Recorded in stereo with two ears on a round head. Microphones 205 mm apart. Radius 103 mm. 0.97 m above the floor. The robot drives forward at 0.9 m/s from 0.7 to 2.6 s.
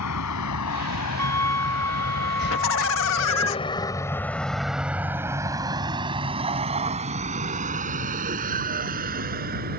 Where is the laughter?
60° left (ahead or behind).